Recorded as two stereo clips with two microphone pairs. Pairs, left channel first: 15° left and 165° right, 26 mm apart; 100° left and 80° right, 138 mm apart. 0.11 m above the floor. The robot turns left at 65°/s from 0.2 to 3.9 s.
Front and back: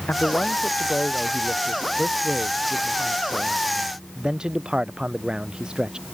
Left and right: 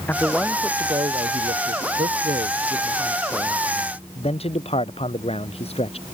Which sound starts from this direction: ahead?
A man speaking, at 0.1 s.